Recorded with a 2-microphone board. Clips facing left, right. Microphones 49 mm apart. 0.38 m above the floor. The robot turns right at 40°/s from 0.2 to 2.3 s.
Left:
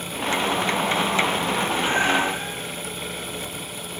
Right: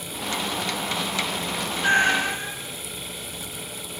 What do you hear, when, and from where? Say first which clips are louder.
1.8 s a cat meowing: right 3 dB; 50° right (ahead or behind), 1.4 m; by 2.6 s 70° right (ahead or behind), 1.4 m